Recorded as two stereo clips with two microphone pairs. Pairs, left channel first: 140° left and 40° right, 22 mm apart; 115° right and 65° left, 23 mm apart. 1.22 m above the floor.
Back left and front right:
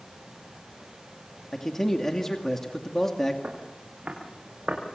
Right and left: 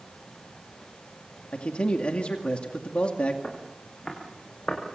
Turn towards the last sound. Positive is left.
turn(degrees=-55)